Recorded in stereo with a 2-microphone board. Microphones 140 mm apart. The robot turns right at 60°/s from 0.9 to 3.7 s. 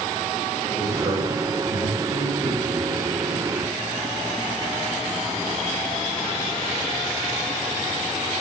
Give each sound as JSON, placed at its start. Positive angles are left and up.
{"t": 0.7, "sound": "a man speaking", "side_deg": -30, "distance_m": 10.0}